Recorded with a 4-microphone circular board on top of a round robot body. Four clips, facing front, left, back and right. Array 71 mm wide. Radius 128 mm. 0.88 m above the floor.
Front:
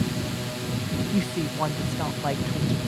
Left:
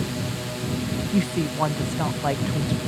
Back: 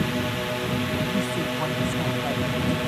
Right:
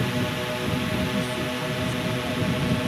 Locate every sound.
0.0 s a drone: 145° right; by 2.9 s 150° right
1.1 s a woman speaking: 70° left